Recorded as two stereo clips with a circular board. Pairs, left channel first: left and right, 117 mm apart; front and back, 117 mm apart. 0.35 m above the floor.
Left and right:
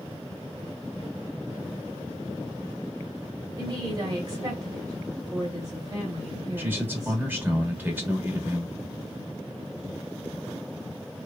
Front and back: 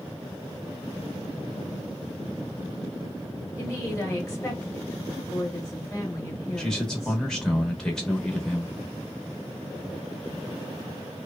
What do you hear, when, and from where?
3.6 s a woman speaking: 50° right, 1.5 m
6.6 s a man speaking: 75° right, 0.9 m